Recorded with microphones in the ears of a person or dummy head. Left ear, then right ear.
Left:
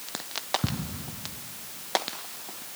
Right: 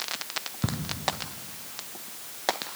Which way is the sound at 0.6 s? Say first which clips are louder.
Even; 5° right (ahead or behind).